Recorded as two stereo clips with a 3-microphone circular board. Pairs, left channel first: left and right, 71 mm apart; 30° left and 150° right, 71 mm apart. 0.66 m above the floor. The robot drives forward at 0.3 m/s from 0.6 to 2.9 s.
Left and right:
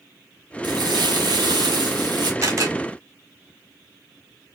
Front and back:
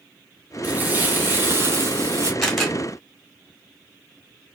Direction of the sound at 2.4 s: 60° right.